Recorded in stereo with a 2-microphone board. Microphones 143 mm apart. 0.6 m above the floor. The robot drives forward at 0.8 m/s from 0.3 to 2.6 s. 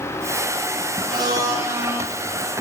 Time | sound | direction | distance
1.1 | a blender | 30° right (ahead or behind) | 1.0 m